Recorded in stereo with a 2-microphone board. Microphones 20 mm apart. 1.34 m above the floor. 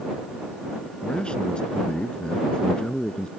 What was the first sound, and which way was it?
A man speaking, 55° left (ahead or behind).